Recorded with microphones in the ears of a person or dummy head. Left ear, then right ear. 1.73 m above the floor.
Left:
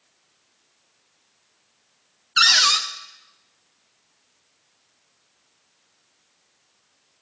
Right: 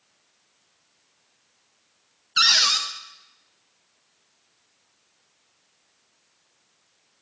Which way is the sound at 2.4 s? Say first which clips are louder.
Left 2 dB; 10° left (ahead or behind).